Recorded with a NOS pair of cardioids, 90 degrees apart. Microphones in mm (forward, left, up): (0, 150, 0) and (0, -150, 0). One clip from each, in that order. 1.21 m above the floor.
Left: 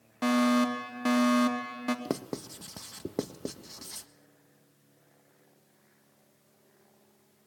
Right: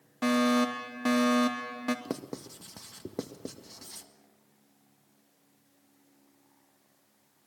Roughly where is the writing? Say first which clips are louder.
Left 3 dB; ahead.